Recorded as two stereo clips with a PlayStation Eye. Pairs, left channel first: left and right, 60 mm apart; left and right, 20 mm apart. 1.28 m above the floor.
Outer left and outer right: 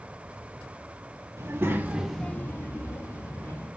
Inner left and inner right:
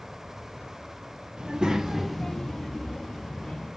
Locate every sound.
1.4 s a child speaking: 55° right (ahead or behind), 1.2 m; by 3.7 s 75° left (ahead or behind), 2 m